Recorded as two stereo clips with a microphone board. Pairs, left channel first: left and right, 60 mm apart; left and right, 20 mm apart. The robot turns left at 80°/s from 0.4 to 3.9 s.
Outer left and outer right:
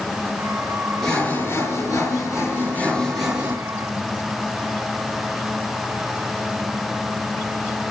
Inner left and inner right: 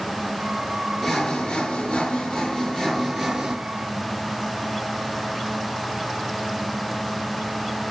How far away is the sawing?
About 3.5 m.